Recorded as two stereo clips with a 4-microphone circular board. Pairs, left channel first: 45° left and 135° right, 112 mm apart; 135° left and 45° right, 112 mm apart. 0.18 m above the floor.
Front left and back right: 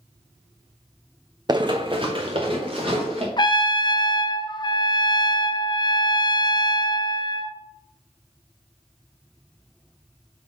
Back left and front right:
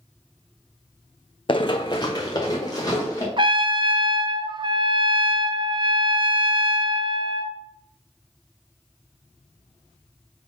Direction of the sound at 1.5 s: 175° left.